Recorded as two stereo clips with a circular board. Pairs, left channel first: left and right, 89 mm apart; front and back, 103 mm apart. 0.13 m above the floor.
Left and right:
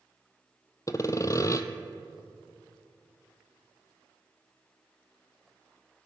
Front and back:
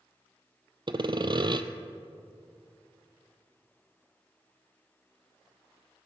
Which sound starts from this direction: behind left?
Sawing, at 0.9 s.